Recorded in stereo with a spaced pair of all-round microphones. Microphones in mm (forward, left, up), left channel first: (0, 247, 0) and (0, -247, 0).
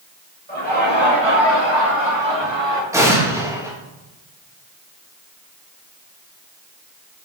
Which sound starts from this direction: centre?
An explosion, at 2.9 s.